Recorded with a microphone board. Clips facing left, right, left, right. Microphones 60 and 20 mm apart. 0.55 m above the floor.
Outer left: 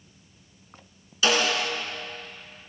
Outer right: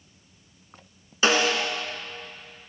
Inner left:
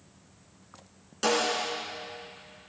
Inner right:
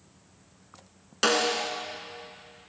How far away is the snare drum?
About 1.1 m.